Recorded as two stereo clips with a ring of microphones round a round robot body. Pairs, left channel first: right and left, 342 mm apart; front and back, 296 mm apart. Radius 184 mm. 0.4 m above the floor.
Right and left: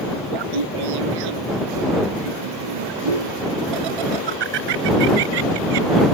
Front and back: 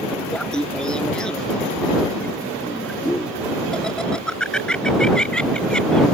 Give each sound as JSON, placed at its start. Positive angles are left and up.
{"t": 0.3, "sound": "laughter", "azimuth_deg": 85}